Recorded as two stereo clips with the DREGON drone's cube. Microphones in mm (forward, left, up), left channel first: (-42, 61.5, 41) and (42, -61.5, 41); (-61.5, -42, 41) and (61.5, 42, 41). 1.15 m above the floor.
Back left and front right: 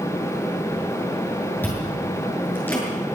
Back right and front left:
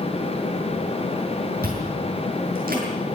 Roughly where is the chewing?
Ahead left.